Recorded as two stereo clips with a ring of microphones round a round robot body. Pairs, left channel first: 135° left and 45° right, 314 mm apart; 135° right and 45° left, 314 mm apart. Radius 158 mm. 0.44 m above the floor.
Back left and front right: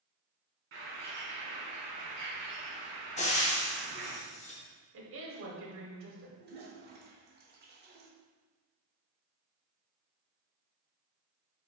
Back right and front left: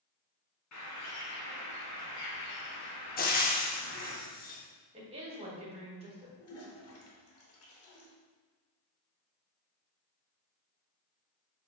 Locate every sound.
0.7 s a bird: 95° right, 2.0 m
3.2 s frying: 175° right, 0.7 m
4.9 s a woman speaking: 20° right, 1.1 m
6.4 s a toilet flushing: 100° right, 1.0 m